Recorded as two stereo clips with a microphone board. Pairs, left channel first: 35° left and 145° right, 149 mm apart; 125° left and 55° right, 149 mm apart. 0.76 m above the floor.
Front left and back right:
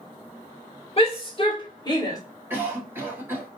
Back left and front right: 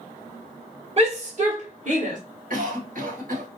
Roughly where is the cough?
Right.